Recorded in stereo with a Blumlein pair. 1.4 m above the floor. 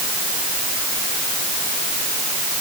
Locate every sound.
Only background noise.